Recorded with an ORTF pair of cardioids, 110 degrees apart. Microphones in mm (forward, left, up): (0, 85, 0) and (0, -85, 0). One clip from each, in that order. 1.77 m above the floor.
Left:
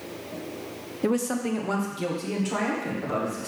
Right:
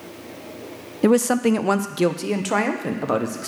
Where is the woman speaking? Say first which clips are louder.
Right 9 dB; 35° right, 0.6 m; by 3.5 s 70° right, 1.9 m.